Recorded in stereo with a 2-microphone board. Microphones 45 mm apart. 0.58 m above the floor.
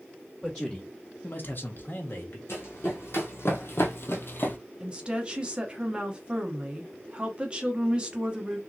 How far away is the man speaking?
About 1.1 m.